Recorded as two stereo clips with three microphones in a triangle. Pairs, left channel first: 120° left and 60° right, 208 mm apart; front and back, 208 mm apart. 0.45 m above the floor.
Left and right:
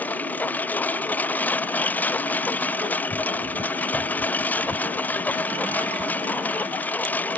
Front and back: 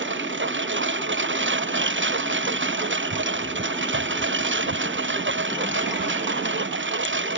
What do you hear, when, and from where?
0.0 s a lawn mower: 160° right